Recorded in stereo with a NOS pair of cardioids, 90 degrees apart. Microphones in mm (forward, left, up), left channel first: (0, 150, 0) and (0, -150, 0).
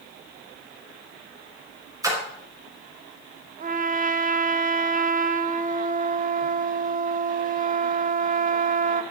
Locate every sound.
2.0 s a splash: 10° right, 6 m
3.6 s a trumpet: 30° right, 0.7 m